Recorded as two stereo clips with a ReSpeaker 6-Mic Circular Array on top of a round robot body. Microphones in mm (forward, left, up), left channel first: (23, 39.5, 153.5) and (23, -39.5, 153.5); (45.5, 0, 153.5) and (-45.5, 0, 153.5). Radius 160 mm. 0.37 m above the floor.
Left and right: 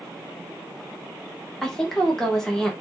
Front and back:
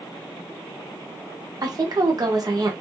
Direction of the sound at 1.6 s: 170° left.